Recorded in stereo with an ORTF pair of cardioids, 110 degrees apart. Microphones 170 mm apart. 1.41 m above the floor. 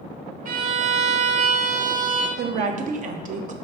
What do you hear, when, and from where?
0.5 s a violin: 50° right, 0.8 m
2.4 s a woman speaking: 45° right, 0.6 m